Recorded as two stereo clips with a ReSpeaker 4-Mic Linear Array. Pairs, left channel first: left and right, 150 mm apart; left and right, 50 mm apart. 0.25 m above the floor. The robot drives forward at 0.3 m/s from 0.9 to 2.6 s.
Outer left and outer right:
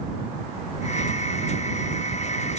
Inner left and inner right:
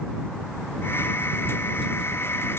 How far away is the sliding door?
I don't hear a sliding door.